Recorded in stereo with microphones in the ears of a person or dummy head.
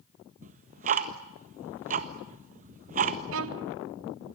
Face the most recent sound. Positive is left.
turn(degrees=-70)  # may be behind; listen again after turning